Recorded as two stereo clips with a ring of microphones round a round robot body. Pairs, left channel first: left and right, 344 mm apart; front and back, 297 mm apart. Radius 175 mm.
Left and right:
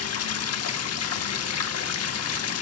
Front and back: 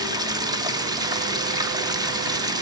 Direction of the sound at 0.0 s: 110° left.